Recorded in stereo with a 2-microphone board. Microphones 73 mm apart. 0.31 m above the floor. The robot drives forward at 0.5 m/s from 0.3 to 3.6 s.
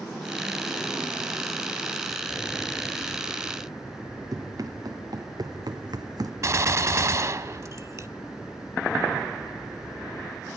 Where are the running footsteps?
55° right (ahead or behind), 2.5 m; by 6.3 s 60° right (ahead or behind), 0.8 m.